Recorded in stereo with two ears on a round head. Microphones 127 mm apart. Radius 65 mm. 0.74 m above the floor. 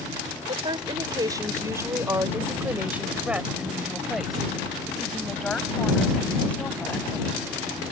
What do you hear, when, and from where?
0.5 s a woman speaking: 35° right (ahead or behind); by 7.5 s 15° left (ahead or behind)